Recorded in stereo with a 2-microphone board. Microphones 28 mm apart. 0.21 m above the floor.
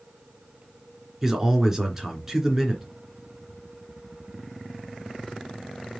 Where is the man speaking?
15° right (ahead or behind), 3 m.